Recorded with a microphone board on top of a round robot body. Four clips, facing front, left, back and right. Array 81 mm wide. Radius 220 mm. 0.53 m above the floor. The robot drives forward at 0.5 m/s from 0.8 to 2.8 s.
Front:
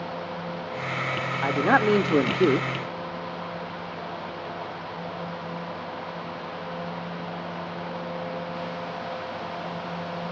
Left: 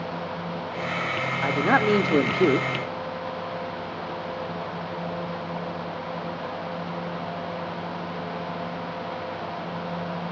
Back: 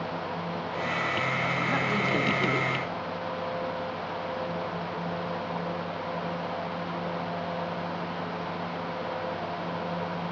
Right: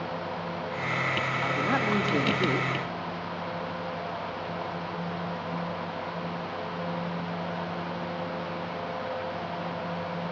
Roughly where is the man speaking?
Ahead left.